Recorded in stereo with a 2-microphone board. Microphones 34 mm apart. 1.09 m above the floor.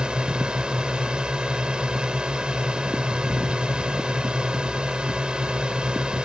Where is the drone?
25° right (ahead or behind).